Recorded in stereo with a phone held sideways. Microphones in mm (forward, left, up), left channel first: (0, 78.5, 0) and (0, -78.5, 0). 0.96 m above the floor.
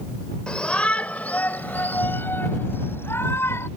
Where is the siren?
No siren in this recording.